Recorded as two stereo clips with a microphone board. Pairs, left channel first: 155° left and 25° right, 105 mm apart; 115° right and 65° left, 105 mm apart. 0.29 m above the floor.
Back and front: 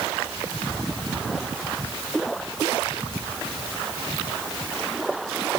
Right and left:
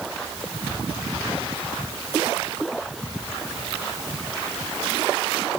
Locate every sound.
Only background noise.